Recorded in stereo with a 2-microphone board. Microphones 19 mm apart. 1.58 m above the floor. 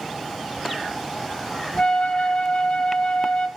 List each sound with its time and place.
1.8 s a flute: 55° left (ahead or behind), 1.3 m